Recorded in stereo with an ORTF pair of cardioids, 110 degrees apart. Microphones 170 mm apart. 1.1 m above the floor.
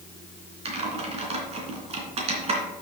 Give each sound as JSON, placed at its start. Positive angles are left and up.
{"t": 0.7, "sound": "typing on a keyboard", "azimuth_deg": -40, "distance_m": 3.0}